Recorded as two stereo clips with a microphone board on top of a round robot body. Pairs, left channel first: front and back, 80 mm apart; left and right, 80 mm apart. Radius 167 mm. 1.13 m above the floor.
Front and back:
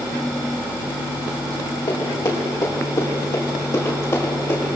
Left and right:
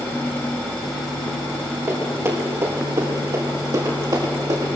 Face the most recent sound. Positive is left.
turn(degrees=-60)